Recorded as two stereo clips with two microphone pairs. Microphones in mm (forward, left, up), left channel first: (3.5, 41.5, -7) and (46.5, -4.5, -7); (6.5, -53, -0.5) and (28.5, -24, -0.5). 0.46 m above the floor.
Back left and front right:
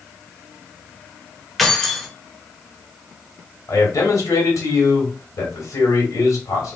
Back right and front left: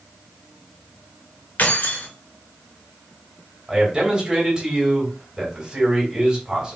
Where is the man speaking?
125° left, 2.5 m.